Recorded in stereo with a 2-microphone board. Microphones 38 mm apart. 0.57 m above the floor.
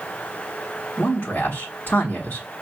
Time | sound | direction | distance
1.0 | a man speaking | 55° left (ahead or behind) | 1.2 m